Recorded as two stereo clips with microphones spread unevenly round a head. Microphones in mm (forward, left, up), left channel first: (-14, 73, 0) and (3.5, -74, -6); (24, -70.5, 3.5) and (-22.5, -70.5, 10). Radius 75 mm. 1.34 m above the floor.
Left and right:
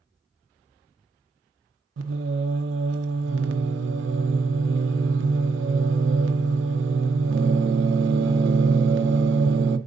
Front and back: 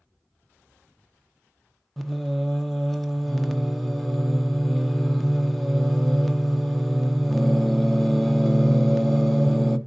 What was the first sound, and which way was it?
Singing, 85° right.